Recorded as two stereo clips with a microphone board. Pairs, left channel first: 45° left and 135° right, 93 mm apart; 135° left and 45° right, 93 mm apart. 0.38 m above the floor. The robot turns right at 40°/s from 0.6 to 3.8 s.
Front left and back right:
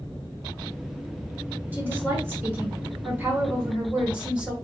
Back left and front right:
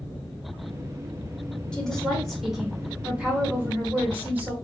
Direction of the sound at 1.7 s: 160° right.